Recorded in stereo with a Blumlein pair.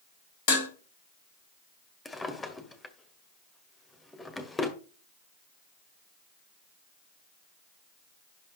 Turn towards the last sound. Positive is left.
turn(degrees=10)